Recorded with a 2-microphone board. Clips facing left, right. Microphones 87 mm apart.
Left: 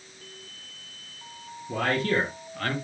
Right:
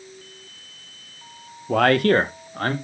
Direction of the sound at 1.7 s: 80° right.